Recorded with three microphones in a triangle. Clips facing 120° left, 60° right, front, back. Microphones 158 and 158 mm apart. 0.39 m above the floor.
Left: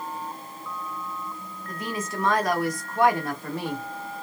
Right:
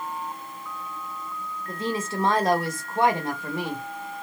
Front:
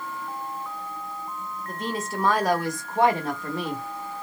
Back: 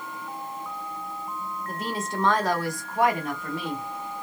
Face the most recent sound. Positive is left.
turn(degrees=15)